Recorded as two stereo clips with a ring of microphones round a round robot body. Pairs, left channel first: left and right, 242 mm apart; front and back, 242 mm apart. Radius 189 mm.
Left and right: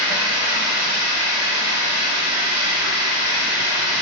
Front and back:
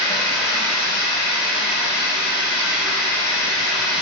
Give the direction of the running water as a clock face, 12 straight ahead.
3 o'clock.